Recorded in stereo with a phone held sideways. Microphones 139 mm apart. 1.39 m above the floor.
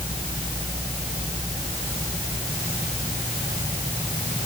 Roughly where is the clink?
No clink in this recording.